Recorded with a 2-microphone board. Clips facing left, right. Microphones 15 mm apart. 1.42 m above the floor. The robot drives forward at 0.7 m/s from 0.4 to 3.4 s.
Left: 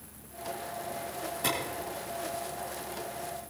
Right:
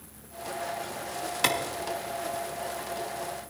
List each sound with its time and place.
1.4 s a clap: 55° right (ahead or behind), 2 m; by 1.6 s 50° right (ahead or behind), 2 m